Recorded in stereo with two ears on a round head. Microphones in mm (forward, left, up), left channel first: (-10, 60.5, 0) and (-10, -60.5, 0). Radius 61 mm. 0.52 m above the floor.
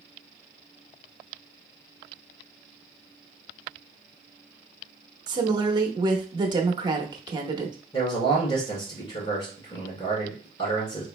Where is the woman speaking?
35° right (ahead or behind), 0.8 m.